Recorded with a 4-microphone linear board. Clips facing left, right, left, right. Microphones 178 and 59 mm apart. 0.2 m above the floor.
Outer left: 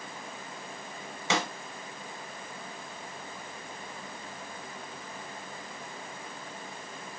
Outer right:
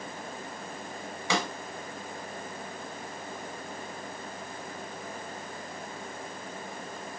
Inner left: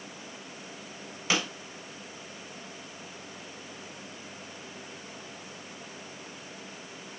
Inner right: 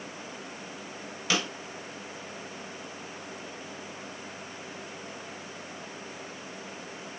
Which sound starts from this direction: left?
A snare drum, at 1.3 s.